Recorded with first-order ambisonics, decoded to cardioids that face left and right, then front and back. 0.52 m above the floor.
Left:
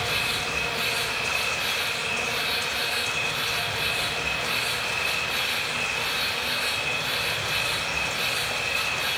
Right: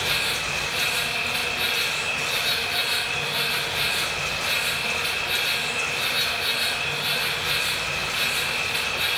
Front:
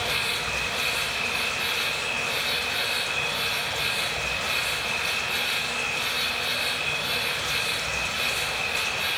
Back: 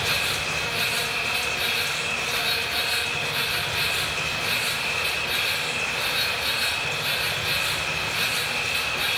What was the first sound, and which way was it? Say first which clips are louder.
An insect: right 2 dB, back 2 dB; 140° right.